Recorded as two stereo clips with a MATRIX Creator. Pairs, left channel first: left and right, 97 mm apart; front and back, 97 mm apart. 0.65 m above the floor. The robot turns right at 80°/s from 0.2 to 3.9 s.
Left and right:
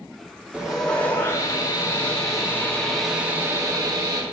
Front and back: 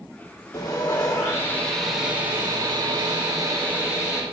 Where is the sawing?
15° right, 1.6 m; by 4.2 s 105° right, 1.6 m.